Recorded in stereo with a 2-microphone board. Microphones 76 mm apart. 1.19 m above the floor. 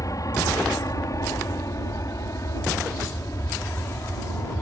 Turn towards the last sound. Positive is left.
turn(degrees=40)  # may be behind; listen again after turning